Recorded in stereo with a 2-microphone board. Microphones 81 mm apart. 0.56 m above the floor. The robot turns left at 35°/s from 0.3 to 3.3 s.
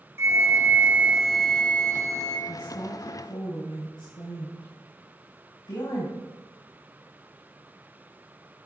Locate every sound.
0.2 s a flute: 145° right, 1.2 m; by 2.4 s 140° left, 1.2 m
2.5 s a woman speaking: 25° left (ahead or behind), 4 m; by 6.2 s 55° left (ahead or behind), 4 m